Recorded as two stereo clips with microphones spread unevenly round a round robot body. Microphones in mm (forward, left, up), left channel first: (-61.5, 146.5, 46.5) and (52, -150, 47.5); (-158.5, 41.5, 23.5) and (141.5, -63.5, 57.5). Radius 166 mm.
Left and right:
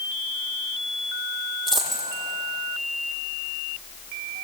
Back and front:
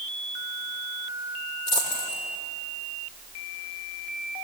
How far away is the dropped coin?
About 6.5 m.